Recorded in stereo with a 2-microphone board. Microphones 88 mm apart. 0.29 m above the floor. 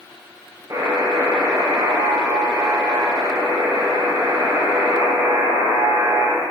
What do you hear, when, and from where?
0.7 s a buzzer: 45° right (ahead or behind), 8.5 m